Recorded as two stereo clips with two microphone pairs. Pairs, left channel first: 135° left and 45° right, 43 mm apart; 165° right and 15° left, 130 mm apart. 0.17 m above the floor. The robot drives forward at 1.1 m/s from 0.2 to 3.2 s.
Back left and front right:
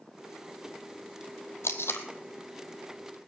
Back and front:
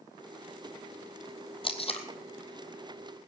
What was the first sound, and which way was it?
Tape being pulled, 145° left.